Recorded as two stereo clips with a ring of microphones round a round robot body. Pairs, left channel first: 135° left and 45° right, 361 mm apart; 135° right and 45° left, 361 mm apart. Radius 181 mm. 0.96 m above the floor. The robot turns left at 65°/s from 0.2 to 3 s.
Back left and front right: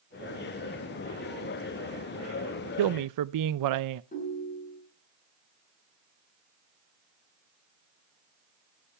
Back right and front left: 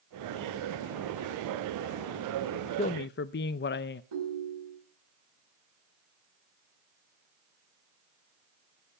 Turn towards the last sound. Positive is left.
turn(degrees=65)